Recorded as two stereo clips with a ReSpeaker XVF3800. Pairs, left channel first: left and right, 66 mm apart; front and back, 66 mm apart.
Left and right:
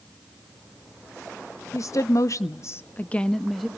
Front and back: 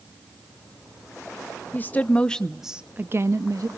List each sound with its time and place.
1.7 s a woman speaking: 55° left, 1.1 m; by 3.7 s straight behind, 0.9 m